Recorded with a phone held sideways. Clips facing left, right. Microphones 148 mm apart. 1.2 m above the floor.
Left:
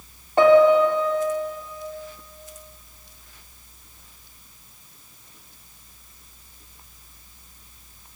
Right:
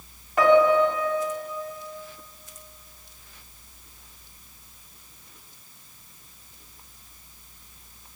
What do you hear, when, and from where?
0.4 s a piano: 30° left (ahead or behind), 3.5 m